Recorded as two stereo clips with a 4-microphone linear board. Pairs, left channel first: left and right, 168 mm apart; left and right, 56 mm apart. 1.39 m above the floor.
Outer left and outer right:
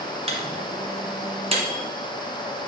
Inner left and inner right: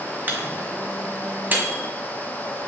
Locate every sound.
0.3 s a microwave: 35° right (ahead or behind), 1.1 m